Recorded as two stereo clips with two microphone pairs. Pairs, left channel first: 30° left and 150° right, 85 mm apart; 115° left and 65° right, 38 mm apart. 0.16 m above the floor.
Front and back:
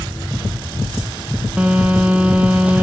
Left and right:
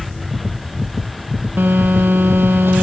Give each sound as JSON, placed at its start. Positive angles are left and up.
{"t": 1.6, "sound": "a phone buzzing", "azimuth_deg": -80, "distance_m": 0.8}